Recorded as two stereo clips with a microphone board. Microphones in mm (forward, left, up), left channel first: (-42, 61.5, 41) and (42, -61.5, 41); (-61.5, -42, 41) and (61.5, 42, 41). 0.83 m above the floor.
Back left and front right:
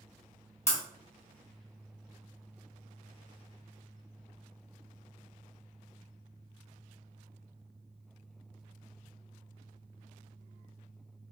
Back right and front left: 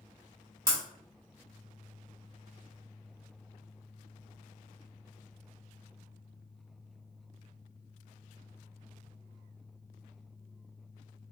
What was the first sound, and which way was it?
Breaking glass, 90° left.